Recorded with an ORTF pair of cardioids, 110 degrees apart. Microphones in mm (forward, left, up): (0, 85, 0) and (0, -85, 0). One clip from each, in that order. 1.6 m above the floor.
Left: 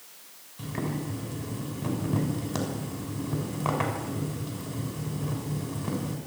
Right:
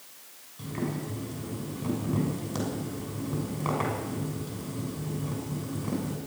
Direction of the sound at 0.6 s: 20° left.